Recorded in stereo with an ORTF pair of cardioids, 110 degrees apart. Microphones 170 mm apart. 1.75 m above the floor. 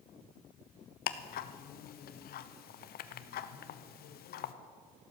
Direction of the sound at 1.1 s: 60° left.